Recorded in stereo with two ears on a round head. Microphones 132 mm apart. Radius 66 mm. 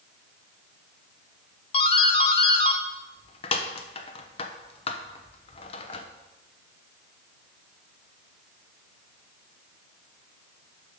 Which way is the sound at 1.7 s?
35° left (ahead or behind).